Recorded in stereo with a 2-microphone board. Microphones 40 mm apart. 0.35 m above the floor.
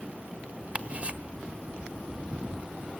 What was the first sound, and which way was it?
Ticking, 35° right (ahead or behind).